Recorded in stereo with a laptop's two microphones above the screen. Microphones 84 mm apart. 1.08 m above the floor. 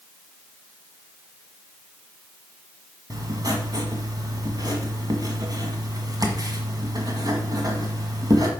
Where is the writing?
45° right (ahead or behind), 1.6 m.